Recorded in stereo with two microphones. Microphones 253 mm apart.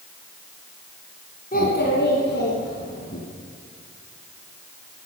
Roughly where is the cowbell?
I don't hear a cowbell.